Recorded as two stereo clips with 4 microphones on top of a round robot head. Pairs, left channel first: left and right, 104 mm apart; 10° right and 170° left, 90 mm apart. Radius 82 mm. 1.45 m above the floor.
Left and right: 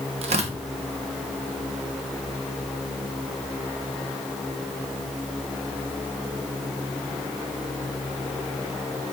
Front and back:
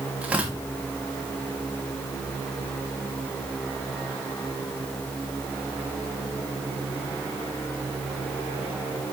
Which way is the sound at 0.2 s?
105° right.